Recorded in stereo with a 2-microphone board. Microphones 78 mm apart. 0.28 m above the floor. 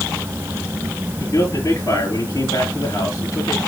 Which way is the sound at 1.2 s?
45° left (ahead or behind).